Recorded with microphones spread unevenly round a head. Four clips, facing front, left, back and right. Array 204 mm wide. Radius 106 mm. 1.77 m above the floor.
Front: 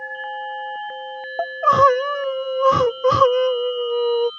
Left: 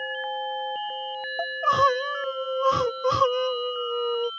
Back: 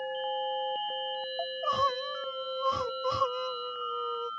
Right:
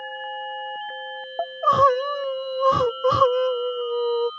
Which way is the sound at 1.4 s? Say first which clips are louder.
Right 4 dB, front 15 dB; 15° right.